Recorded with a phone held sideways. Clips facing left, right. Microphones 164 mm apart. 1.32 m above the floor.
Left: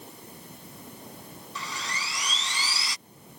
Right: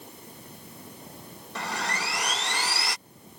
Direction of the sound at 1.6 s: 65° right (ahead or behind).